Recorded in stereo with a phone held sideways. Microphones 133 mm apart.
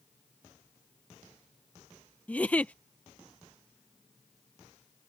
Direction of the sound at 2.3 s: 10° left (ahead or behind).